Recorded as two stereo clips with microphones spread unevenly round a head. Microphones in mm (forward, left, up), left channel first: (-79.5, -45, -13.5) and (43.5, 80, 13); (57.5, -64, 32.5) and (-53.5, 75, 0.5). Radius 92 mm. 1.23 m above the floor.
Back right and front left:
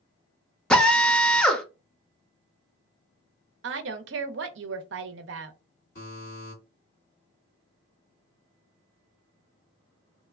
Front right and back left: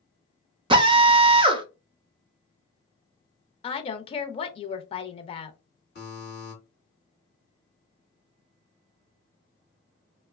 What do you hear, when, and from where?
0.7 s a drill: 155° left, 0.5 m
3.6 s a woman speaking: 10° left, 0.5 m
6.0 s a buzzer: 85° right, 2 m